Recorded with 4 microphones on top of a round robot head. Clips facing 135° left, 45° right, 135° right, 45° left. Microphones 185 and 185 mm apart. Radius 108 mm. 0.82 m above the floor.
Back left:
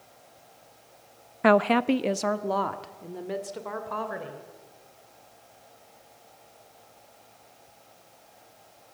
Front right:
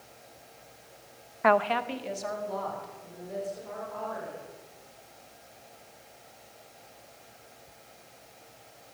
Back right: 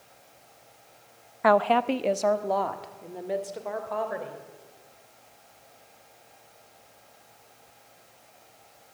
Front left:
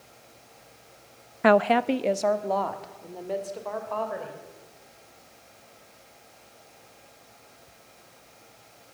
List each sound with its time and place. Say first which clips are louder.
1.4 s a woman speaking: back left 5 dB, front left 2 dB; 95° left, 0.5 m; by 4.4 s 140° left, 3.5 m